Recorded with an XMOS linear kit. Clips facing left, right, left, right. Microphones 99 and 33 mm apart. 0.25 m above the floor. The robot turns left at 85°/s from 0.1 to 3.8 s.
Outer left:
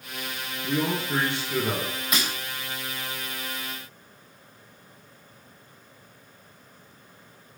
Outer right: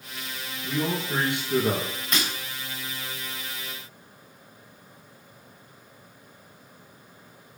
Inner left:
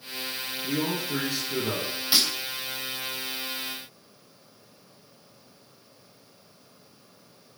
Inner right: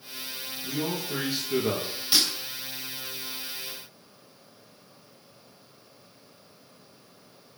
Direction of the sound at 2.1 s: 10° left (ahead or behind).